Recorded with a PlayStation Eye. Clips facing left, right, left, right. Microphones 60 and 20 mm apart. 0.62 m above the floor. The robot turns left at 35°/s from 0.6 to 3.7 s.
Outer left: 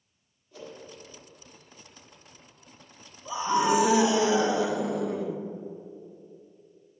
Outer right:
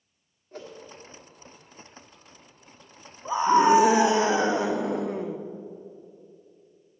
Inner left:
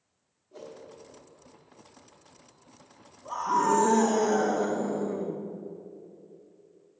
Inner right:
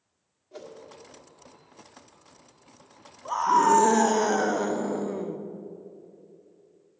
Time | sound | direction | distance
0.5 | a whoosh | 40° right (ahead or behind) | 1.6 m
3.2 | a scream | 40° right (ahead or behind) | 0.7 m